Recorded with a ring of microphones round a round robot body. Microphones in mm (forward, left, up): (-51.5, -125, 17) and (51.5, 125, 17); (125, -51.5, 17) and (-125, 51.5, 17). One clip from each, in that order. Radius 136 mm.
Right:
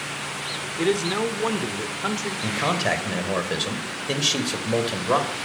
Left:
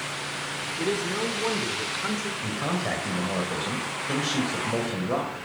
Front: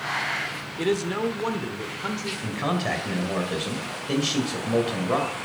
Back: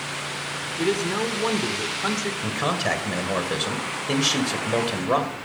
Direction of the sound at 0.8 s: 95° right.